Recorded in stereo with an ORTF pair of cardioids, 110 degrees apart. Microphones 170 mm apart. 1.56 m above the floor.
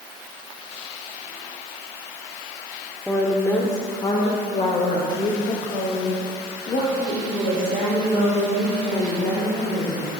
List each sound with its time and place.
3.1 s a woman speaking: 5° left, 1.0 m; by 10.1 s 55° left, 4.5 m